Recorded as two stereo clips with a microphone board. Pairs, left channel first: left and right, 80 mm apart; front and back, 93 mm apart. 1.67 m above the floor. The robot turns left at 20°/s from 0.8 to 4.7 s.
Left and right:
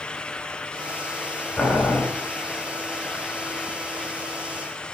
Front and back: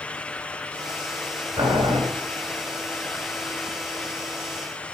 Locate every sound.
1.6 s boiling: 155° left, 3.5 m; by 2.0 s 145° left, 3.5 m